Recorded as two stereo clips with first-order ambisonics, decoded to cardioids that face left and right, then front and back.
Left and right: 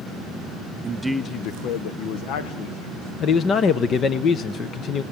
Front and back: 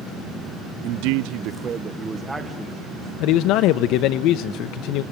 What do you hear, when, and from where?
0.8 s a man speaking: 155° right, 0.7 m; by 3.1 s 90° left, 2.5 m
3.2 s a man speaking: 30° left, 0.9 m